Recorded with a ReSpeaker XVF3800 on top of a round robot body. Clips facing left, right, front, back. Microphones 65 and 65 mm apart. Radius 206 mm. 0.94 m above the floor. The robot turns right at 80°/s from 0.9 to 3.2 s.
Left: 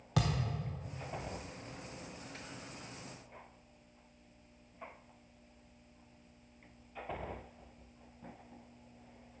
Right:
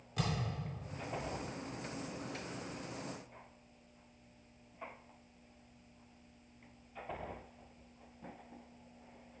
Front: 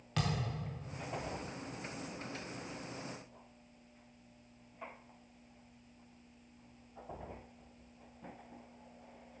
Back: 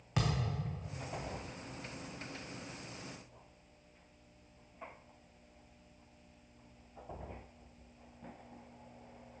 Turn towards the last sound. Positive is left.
turn(degrees=-75)